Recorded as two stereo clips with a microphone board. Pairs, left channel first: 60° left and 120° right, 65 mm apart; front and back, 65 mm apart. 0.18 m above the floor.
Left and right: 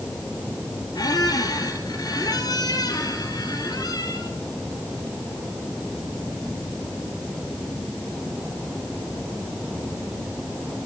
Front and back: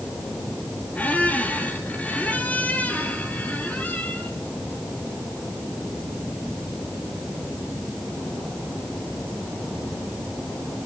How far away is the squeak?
About 2 m.